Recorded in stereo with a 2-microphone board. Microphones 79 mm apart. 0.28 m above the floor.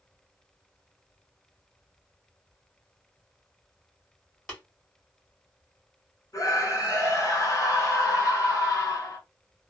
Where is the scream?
40° left (ahead or behind), 1.7 m.